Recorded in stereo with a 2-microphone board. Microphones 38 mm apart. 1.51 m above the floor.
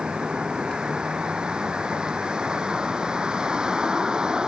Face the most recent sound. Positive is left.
turn(degrees=-20)  # may be behind; listen again after turning